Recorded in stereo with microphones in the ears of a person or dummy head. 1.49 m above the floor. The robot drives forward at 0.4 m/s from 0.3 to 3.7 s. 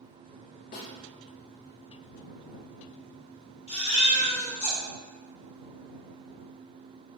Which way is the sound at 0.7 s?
55° left (ahead or behind).